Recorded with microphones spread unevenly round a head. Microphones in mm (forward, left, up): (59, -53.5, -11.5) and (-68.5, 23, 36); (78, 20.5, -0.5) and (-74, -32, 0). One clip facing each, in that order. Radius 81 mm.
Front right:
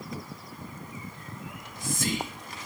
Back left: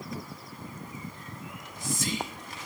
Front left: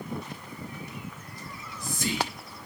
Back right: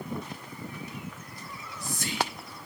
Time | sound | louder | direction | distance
1.5 | whispering | even, front left 1 dB | straight ahead | 0.9 m